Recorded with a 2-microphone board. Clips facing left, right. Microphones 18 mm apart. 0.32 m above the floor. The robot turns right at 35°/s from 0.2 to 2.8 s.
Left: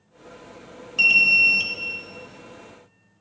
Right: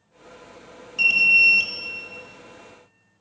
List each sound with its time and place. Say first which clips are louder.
1.0 s an alarm: even; 20° left (ahead or behind), 0.9 m; by 1.7 s 5° left (ahead or behind), 0.9 m